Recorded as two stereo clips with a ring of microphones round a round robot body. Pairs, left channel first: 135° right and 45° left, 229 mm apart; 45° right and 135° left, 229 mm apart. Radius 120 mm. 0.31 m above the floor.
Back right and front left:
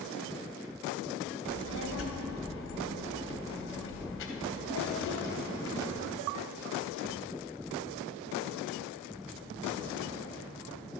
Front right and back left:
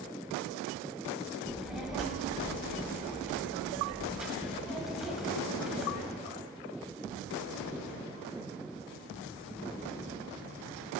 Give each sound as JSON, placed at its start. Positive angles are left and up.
{"t": 1.4, "sound": "a child speaking", "azimuth_deg": -140, "distance_m": 1.2}